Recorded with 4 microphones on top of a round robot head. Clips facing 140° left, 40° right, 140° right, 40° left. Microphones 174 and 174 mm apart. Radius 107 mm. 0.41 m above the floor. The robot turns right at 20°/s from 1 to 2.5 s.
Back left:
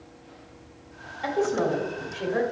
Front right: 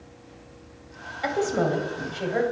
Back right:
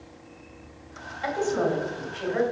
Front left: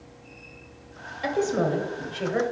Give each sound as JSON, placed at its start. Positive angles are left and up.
{"t": 1.2, "sound": "a woman speaking", "azimuth_deg": 25, "distance_m": 1.6}